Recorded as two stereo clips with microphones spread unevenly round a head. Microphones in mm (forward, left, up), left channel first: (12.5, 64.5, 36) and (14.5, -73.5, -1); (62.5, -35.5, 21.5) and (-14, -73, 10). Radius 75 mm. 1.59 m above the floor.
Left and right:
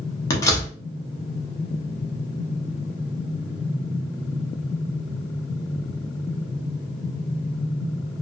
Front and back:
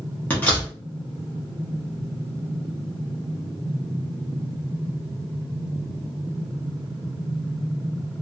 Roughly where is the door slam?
Left.